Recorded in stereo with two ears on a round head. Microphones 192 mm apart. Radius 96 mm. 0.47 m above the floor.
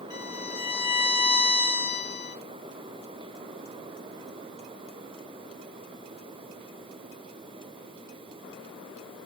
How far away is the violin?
About 3.5 m.